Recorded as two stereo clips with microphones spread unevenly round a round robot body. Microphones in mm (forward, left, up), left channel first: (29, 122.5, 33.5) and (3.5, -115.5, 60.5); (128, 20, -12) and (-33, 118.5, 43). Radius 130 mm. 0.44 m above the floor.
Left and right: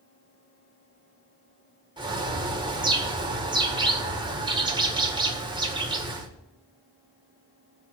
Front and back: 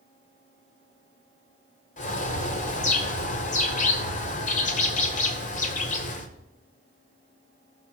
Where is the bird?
25° right, 1.7 m.